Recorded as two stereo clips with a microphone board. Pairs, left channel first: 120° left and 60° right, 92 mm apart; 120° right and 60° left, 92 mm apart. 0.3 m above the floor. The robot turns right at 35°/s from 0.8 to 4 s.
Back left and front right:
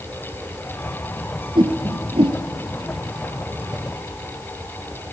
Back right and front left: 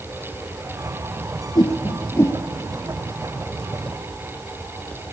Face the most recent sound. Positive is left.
turn(degrees=0)